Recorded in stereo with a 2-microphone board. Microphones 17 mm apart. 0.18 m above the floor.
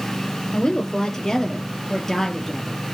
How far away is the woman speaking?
About 5 m.